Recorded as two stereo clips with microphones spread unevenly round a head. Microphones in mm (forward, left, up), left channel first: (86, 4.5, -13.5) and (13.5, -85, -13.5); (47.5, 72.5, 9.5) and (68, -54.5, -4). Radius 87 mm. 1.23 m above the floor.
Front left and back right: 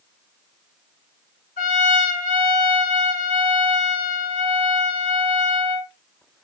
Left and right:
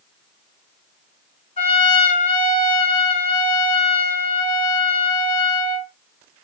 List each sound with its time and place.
1.6 s a trumpet: 70° left, 1.4 m